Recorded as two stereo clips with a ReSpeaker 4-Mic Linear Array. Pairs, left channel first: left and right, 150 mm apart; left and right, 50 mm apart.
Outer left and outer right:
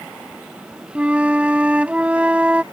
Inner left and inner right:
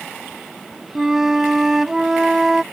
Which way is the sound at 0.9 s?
10° right (ahead or behind).